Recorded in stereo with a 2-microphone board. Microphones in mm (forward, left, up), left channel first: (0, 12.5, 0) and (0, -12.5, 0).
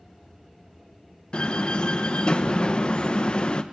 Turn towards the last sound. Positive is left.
turn(degrees=45)  # may be behind; listen again after turning